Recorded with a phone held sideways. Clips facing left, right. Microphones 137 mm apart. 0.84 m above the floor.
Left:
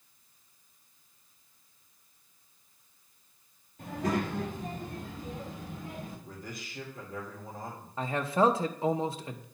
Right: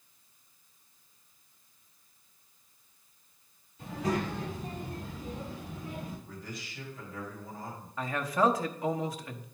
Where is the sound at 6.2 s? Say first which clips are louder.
Even; 60° left (ahead or behind), 3.5 m.